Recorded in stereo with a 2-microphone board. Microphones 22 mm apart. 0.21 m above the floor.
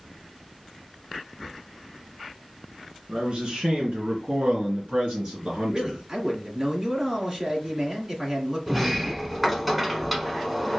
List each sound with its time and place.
3.1 s a man speaking: 45° right (ahead or behind), 2 m; by 6.0 s 50° right (ahead or behind), 3.5 m
5.7 s a man speaking: 25° right (ahead or behind), 2 m
8.7 s a sliding door: 5° right (ahead or behind), 0.8 m